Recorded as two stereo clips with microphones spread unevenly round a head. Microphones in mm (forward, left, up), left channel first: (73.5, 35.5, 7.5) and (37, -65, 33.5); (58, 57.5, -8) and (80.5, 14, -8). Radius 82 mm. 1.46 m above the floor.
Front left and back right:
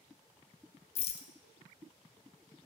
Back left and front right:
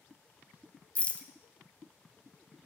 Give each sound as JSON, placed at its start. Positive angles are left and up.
{"t": 0.9, "sound": "a rattle", "azimuth_deg": 65, "distance_m": 0.5}